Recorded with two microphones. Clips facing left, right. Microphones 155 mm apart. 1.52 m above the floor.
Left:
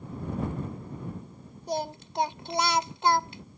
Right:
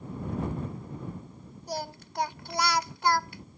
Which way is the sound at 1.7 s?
20° left (ahead or behind).